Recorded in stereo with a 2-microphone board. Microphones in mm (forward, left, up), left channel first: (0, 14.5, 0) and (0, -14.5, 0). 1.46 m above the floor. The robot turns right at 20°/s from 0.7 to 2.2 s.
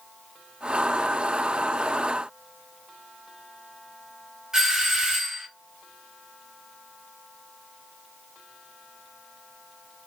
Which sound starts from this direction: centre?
A doorbell, at 4.5 s.